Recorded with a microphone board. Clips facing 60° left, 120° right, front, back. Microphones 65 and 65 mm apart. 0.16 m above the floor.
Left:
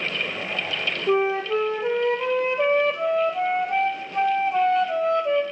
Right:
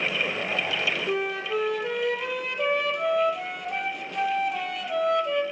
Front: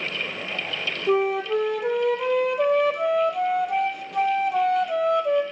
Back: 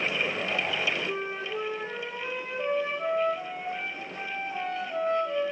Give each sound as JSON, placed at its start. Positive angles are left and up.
{"t": 1.1, "sound": "a flute", "azimuth_deg": 5, "distance_m": 0.8}